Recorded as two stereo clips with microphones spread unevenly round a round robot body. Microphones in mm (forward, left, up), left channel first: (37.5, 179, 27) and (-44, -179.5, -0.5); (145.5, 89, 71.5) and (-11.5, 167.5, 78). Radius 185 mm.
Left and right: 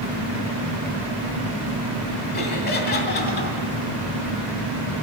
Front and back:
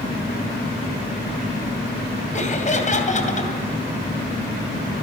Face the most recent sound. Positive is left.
turn(degrees=15)